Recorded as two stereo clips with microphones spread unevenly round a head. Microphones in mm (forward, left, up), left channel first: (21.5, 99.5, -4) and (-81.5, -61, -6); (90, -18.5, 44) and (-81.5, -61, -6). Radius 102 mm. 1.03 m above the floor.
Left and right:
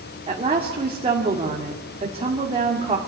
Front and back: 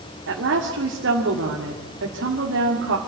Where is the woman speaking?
Straight behind, 2 m.